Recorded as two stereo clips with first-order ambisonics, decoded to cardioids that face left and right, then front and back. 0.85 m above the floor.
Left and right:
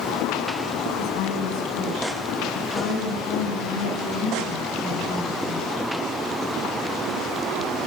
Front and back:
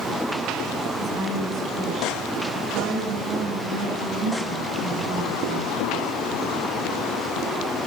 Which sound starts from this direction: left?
A woman speaking, at 1.0 s.